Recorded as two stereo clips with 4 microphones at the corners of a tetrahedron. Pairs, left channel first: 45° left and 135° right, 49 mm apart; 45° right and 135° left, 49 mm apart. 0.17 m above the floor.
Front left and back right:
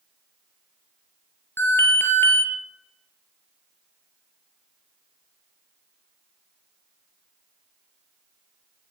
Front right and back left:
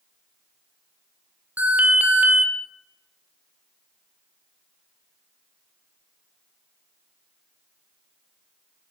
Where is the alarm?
80° left, 4.5 m.